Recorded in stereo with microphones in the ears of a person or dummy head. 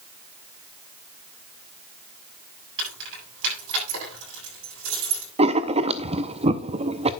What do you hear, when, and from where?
2.8 s keys jangling: 70° right (ahead or behind), 7.5 m
5.4 s writing: 30° right (ahead or behind), 0.6 m